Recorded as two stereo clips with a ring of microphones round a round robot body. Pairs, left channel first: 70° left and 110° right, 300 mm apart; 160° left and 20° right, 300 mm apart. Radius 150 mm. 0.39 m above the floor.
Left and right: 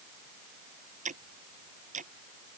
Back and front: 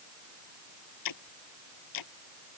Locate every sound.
1.1 s ticking: straight behind